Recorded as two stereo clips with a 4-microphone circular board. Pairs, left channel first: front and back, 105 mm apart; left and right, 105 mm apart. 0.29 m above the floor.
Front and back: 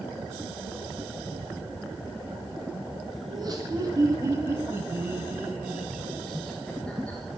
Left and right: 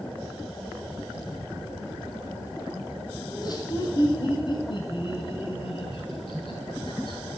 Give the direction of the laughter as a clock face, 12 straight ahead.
7 o'clock.